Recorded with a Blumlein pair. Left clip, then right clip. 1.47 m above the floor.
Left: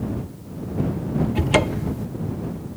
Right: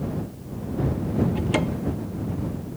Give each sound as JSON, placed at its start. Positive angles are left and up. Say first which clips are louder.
{"t": 1.4, "sound": "a cupboard door", "louder": "left 5 dB", "azimuth_deg": 70}